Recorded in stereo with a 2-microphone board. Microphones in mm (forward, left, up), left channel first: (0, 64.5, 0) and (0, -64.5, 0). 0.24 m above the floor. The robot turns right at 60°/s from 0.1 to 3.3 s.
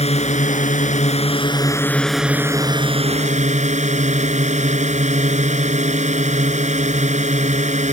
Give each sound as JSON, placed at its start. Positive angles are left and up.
{"t": 0.0, "sound": "a drone", "azimuth_deg": 55}